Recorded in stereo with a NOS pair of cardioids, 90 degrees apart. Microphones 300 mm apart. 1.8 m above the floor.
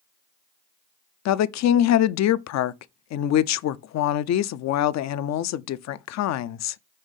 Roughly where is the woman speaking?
Ahead left.